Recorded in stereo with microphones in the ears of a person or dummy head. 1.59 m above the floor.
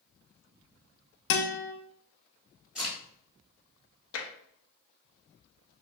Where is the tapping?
85° left, 0.8 m.